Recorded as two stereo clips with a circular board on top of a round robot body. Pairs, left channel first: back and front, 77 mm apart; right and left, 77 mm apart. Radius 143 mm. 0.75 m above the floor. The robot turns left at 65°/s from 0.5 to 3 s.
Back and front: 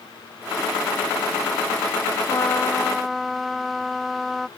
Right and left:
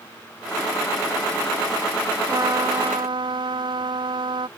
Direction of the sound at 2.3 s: 135° left.